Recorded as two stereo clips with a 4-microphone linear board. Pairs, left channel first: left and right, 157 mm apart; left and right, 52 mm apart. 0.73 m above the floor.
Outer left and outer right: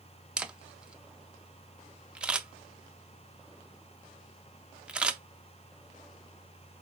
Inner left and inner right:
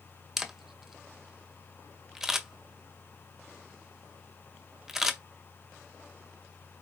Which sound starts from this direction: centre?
A camera shutter, at 0.4 s.